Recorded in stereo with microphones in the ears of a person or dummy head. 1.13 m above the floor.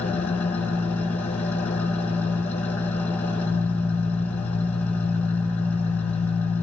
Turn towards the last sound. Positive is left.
turn(degrees=10)  # may be behind; listen again after turning